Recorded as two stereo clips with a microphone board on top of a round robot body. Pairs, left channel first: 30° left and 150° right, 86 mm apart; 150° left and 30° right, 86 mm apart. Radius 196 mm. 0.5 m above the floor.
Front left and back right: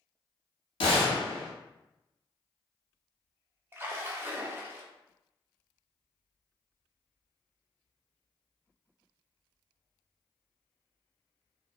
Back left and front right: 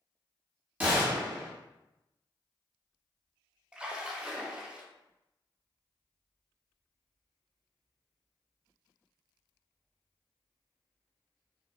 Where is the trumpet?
I don't hear a trumpet.